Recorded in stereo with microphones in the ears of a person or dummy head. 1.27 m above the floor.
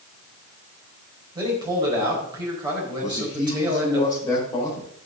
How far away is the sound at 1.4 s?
About 5 m.